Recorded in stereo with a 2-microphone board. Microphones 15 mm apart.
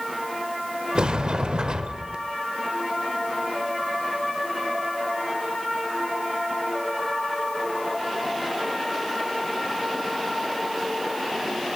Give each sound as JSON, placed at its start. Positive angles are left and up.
{"t": 0.9, "sound": "a sliding door", "side_deg": -65, "distance_m": 0.6}